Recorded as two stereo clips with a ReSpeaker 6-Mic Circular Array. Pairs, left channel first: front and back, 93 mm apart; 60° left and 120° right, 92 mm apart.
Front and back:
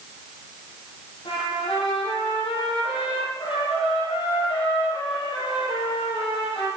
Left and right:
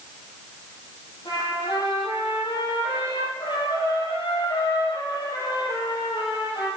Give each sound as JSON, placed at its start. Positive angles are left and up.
{"t": 1.2, "sound": "a trumpet", "azimuth_deg": 20, "distance_m": 5.0}